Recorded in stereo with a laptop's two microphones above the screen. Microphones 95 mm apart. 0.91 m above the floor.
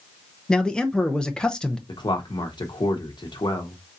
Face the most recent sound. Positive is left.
turn(degrees=50)  # may be behind; listen again after turning